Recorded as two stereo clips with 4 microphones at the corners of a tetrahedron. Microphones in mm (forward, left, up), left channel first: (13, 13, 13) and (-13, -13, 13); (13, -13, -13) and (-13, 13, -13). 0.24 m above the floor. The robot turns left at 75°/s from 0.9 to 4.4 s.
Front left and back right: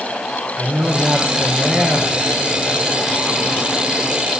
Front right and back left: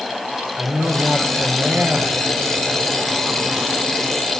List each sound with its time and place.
0.6 s a man speaking: 170° right, 4 m; by 2.1 s 100° left, 4 m